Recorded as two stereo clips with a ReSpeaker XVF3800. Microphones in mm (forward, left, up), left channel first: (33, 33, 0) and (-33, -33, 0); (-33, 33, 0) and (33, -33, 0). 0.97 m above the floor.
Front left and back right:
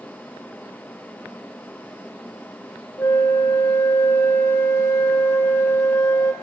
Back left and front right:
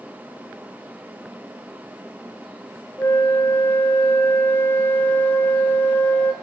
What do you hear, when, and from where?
3.0 s a flute: 85° left, 0.6 m